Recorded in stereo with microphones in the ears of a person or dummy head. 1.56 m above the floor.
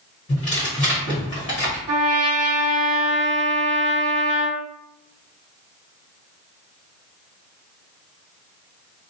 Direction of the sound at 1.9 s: 20° right (ahead or behind).